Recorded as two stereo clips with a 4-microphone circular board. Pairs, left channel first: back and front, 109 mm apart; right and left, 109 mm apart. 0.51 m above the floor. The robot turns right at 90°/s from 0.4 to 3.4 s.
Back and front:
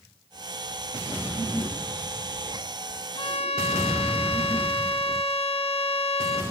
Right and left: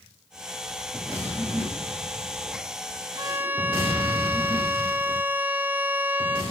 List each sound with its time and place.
3.1 s a violin: 140° left, 2.0 m; by 6.4 s 160° left, 2.0 m